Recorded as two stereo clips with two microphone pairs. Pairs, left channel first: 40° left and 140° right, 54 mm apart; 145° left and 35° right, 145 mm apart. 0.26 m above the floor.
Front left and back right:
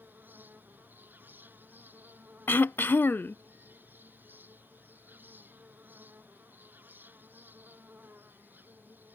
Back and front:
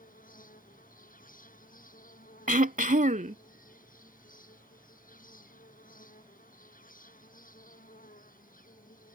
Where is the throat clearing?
10° right.